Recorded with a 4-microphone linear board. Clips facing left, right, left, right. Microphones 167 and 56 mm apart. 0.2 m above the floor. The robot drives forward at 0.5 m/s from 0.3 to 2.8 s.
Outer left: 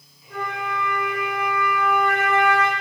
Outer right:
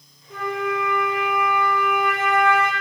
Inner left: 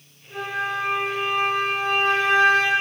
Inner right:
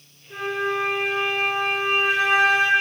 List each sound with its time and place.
0.3 s a flute: 10° right (ahead or behind), 2.5 m; by 2.7 s 15° right (ahead or behind), 1.5 m